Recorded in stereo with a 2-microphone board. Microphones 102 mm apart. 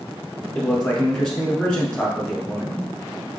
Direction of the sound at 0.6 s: 10° left (ahead or behind).